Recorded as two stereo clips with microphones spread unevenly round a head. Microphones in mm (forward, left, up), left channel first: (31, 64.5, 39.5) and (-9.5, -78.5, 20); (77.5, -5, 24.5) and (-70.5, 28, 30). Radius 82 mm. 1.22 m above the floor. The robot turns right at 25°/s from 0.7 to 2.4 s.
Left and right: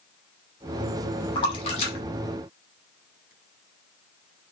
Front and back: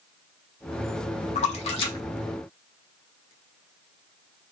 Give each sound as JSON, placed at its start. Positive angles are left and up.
{"t": 1.4, "sound": "a splash", "azimuth_deg": 25, "distance_m": 1.3}